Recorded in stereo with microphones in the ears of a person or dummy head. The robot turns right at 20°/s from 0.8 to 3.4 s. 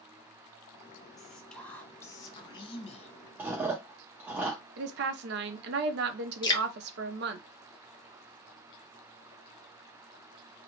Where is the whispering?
5° left, 1.0 m; by 3.1 s 45° left, 1.0 m.